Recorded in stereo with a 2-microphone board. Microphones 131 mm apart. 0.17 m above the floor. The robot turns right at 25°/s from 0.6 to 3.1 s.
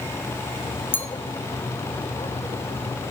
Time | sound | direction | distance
0.9 | a clink | 15° left (ahead or behind) | 1.0 m